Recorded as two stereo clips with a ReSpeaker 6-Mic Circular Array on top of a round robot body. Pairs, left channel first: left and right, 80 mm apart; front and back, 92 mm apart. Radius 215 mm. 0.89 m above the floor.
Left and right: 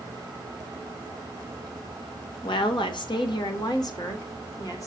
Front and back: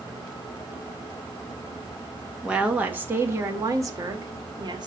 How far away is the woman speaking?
About 1.6 m.